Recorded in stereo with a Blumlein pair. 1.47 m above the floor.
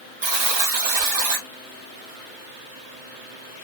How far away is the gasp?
No gasp in this recording.